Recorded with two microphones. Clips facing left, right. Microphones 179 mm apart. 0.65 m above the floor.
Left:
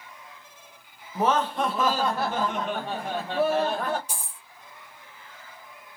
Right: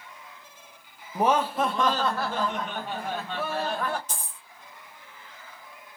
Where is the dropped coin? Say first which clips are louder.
Even; 10° left (ahead or behind), 0.9 m.